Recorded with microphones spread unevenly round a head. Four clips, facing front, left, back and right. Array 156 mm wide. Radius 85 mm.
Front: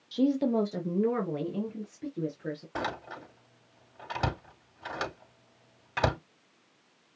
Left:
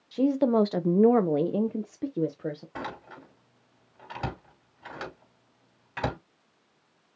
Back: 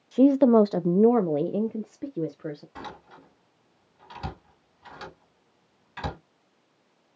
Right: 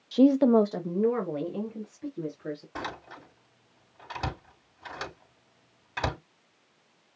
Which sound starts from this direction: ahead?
A door slam, at 2.8 s.